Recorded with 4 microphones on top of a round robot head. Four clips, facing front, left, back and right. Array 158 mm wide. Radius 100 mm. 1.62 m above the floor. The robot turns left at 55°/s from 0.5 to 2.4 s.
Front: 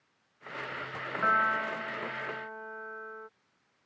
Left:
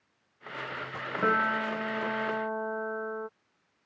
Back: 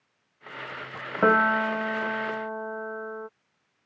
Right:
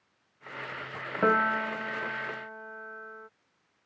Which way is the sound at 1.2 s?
165° right.